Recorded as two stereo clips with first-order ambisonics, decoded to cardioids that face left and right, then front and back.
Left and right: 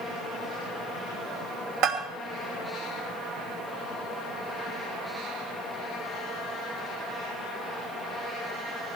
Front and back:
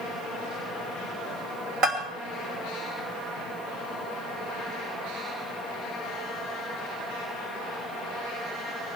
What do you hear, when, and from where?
1.8 s a bell: 125° right, 3 m